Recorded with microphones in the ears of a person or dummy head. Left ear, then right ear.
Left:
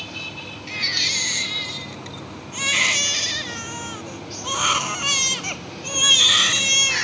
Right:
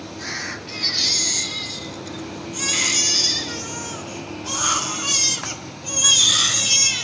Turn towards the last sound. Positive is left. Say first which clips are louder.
# right 1 dB
turn(degrees=30)  # may be behind; listen again after turning